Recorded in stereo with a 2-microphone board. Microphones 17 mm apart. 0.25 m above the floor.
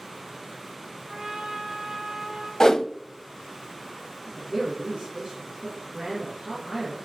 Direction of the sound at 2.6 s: 35° left (ahead or behind).